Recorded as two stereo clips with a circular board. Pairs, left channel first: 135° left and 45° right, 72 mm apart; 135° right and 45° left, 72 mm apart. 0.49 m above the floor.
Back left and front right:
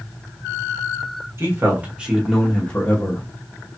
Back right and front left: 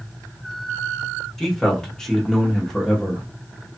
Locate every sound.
1.4 s a man speaking: 55° right, 1.1 m; by 3.2 s 150° left, 1.1 m